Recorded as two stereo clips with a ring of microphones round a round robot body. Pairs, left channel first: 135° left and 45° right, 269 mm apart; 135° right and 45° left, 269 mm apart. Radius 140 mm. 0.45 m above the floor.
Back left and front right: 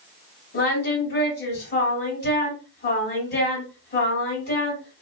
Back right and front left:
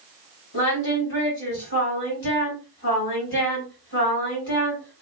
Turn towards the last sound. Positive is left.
turn(degrees=-175)